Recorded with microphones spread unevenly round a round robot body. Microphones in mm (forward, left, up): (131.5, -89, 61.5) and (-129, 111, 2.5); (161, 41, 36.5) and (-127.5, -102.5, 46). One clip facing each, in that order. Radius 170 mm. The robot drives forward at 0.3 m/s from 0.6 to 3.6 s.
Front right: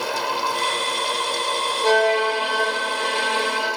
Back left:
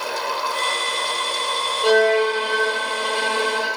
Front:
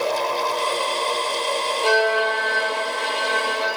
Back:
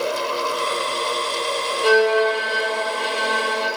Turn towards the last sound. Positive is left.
turn(degrees=175)